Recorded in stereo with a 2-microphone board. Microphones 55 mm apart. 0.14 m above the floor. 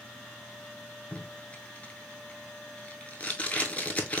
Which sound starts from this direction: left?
Tape being pulled, at 1.1 s.